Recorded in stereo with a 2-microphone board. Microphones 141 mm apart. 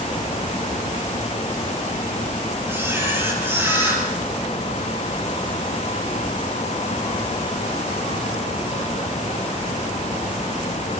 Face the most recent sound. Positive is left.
turn(degrees=-20)  # may be behind; listen again after turning